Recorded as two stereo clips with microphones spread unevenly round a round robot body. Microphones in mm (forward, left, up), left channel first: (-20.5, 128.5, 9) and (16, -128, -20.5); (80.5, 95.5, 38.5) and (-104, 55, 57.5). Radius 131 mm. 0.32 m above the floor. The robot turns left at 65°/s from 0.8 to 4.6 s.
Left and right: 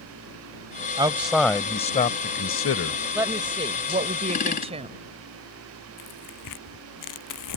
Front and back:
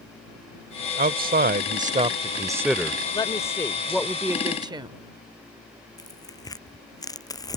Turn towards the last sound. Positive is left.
turn(degrees=85)